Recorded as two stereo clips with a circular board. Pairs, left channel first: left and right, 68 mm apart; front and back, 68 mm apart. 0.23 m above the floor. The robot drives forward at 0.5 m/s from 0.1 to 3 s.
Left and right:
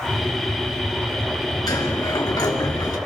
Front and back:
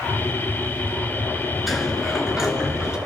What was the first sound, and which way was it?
A sliding door, 90° left.